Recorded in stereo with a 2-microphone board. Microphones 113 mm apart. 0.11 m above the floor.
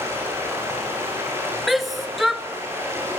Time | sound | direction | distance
0.0 | running water | 20° right (ahead or behind) | 9 m
1.7 | a shout | centre (ahead or behind) | 1.3 m